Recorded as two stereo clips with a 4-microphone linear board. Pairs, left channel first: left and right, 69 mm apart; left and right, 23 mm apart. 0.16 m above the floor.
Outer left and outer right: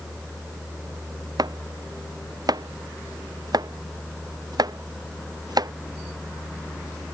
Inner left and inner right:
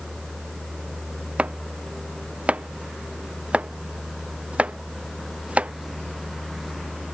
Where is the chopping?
75° right (ahead or behind).